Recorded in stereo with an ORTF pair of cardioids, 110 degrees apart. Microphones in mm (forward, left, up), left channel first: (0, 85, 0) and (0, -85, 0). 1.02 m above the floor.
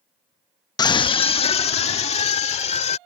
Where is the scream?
25° left; by 3.0 s 40° left.